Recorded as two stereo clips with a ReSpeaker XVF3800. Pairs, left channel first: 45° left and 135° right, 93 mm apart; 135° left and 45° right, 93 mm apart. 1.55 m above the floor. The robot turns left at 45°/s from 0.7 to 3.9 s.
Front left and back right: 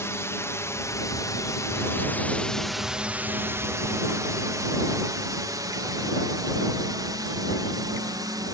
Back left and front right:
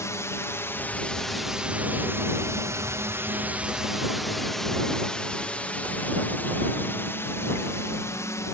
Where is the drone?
90° left; by 8.5 s 175° right.